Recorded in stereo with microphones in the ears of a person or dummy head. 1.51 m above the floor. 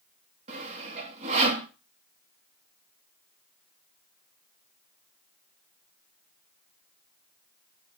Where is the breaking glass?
No breaking glass in this recording.